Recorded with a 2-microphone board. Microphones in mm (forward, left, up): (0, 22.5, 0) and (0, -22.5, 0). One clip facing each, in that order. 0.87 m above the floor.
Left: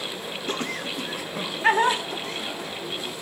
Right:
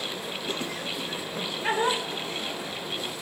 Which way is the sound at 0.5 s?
60° left (ahead or behind).